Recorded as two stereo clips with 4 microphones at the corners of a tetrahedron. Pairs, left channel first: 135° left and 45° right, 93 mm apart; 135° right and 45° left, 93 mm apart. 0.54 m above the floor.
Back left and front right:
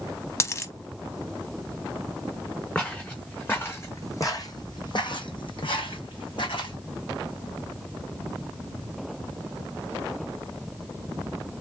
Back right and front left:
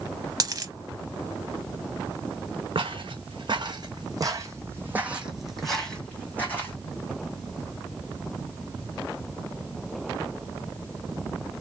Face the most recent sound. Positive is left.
turn(degrees=160)